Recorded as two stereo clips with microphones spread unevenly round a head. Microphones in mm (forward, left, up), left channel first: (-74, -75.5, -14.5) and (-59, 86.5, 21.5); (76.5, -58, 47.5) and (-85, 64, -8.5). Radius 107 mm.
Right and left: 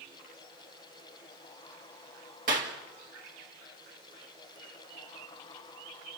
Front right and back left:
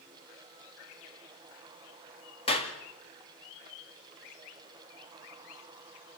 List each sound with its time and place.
2.5 s a clap: 30° left, 2 m